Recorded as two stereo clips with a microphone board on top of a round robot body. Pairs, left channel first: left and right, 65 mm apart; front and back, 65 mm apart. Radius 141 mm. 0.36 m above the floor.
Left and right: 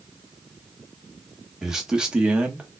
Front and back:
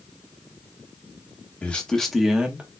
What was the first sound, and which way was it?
A man speaking, 15° right.